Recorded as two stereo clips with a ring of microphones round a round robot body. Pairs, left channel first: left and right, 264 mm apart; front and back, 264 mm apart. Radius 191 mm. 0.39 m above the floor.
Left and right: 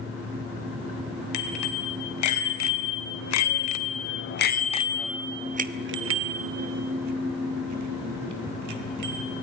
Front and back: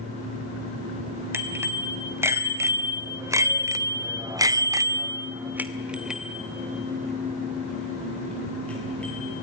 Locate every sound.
1.3 s a bicycle bell: 100° left, 2 m; by 9.3 s 85° right, 2.5 m